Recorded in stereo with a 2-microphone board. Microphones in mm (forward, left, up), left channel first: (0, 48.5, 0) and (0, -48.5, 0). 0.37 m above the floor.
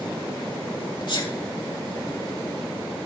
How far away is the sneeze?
About 2.5 m.